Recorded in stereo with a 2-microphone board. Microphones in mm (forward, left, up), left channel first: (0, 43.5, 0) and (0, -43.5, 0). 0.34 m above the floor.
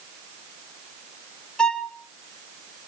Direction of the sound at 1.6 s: 10° left (ahead or behind).